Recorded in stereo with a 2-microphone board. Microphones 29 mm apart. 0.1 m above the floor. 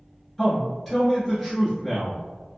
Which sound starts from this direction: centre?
A man speaking, at 0.4 s.